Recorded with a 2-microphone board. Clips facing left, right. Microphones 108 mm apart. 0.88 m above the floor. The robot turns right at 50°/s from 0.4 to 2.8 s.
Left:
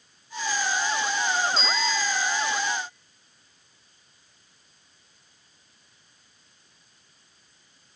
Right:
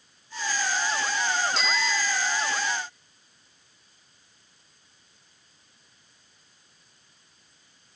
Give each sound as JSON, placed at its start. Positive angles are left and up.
{"t": 1.6, "sound": "a bicycle bell", "azimuth_deg": -100, "distance_m": 2.5}